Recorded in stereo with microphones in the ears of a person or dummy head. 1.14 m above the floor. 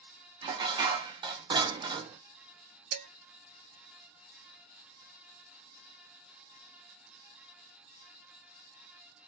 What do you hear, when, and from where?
0.4 s dishes clattering: 20° right (ahead or behind), 0.7 m
2.9 s dishes clattering: 75° right (ahead or behind), 1.2 m